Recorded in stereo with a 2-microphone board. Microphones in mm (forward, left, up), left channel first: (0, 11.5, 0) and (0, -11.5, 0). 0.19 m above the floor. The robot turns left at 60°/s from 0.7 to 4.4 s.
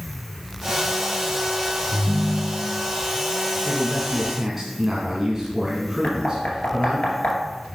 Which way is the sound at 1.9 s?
15° right.